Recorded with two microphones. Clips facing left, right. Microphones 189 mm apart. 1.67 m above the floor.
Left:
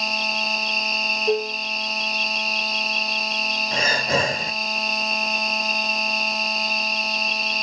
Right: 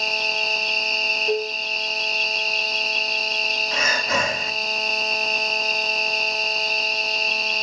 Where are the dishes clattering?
25° left (ahead or behind), 0.7 m.